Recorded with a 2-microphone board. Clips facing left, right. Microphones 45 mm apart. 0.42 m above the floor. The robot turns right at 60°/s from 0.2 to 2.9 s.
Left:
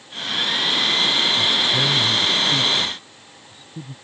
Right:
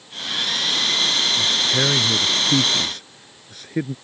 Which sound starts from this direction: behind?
A man speaking, at 1.4 s.